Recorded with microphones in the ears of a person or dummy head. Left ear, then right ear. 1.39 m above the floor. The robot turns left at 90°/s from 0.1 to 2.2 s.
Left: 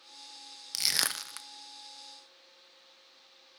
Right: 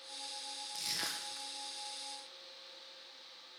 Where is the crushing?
50° left (ahead or behind), 0.6 m; by 1.5 s 60° left (ahead or behind), 0.6 m.